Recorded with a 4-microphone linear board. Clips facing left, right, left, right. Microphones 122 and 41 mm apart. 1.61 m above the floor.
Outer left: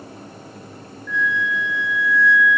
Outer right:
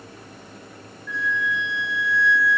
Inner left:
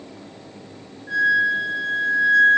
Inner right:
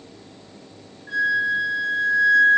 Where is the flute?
10° right (ahead or behind), 1.3 m.